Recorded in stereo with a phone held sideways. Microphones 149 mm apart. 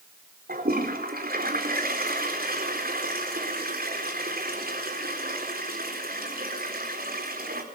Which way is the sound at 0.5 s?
85° right.